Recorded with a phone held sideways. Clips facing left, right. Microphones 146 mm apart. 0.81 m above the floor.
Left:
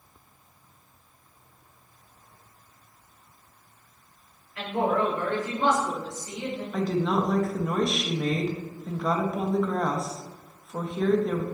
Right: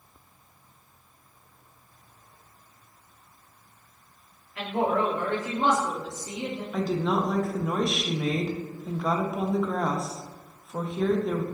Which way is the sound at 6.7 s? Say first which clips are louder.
Left 1 dB; 5° right (ahead or behind).